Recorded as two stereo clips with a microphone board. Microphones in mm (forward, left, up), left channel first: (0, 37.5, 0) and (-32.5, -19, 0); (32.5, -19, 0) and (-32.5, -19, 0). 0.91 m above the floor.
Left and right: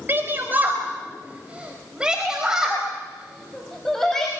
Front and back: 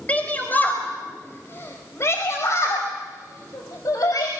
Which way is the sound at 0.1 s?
65° right.